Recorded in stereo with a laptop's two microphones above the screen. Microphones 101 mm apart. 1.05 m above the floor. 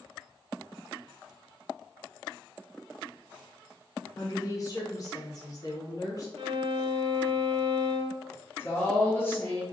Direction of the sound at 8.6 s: 25° left (ahead or behind).